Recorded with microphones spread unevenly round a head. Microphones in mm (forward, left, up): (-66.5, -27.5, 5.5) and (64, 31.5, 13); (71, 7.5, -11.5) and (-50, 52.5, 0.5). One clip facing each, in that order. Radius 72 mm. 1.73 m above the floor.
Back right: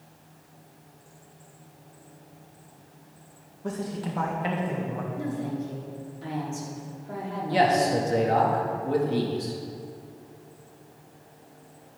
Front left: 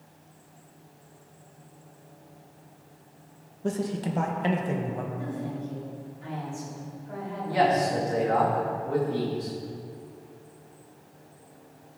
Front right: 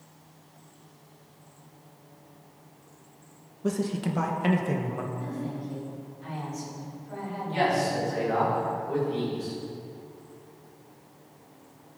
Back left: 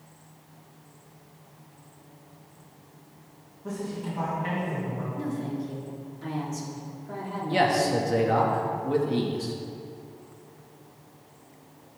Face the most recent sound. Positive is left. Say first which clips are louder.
# back right 1 dB, back left 3 dB
turn(degrees=145)